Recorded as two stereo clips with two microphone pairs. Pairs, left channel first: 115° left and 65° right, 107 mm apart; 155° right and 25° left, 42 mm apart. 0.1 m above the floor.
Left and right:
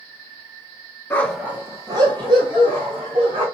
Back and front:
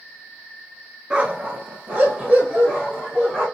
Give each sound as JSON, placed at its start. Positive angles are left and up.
{"t": 1.1, "sound": "a dog barking", "azimuth_deg": 65, "distance_m": 0.7}